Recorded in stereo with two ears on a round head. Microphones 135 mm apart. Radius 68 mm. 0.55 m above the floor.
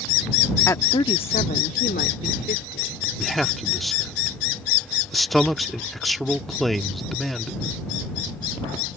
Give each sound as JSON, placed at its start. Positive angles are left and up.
{"t": 0.7, "sound": "a woman speaking", "side_deg": 15}
{"t": 3.2, "sound": "a man speaking", "side_deg": 0}